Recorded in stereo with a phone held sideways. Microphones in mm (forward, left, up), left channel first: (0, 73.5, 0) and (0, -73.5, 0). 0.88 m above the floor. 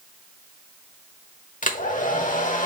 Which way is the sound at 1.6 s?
60° left (ahead or behind).